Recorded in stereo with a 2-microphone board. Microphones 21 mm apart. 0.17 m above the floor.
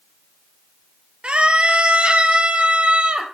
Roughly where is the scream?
Right.